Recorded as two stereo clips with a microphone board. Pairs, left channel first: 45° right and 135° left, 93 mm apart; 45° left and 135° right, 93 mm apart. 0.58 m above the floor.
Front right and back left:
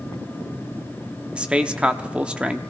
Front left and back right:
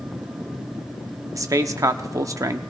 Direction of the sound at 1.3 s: 155° right.